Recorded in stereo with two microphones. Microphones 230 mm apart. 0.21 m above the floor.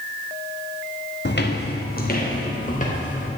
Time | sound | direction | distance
1.2 | footsteps | 50° left (ahead or behind) | 1.6 m